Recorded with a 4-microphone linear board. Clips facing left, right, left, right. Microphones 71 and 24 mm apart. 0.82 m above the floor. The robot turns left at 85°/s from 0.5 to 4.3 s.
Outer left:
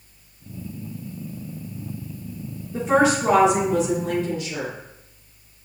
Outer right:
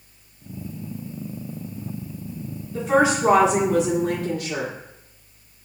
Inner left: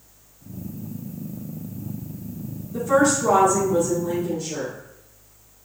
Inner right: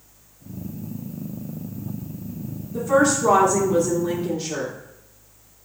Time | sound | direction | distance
2.7 | a woman speaking | 30° left | 2.5 m